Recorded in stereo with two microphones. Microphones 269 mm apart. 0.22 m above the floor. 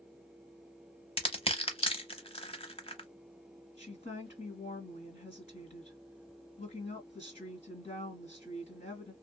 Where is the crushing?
20° left (ahead or behind), 0.7 m.